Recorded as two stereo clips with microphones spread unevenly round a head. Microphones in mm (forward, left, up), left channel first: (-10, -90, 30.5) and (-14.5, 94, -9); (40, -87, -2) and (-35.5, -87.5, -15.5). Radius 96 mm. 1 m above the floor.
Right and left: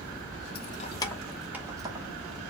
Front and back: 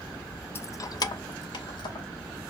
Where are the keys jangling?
55° right, 0.5 m; by 2.1 s 20° left, 0.8 m.